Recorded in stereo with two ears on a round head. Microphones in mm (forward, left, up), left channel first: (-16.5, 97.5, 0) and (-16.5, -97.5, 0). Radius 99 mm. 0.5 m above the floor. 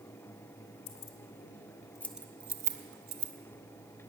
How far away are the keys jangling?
About 1.0 m.